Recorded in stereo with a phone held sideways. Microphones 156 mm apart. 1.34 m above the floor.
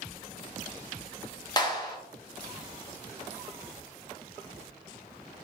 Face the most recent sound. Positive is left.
turn(degrees=25)  # may be behind; listen again after turning